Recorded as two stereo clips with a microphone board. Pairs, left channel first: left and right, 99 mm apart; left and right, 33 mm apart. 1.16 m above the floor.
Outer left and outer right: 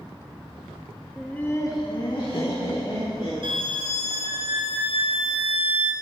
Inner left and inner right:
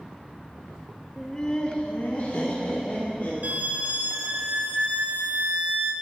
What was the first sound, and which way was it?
Laughter, centre (ahead or behind).